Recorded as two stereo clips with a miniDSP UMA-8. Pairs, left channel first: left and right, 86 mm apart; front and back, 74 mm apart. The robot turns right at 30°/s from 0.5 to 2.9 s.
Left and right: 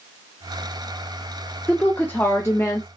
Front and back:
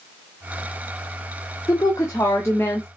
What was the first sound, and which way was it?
A woman speaking, 20° left.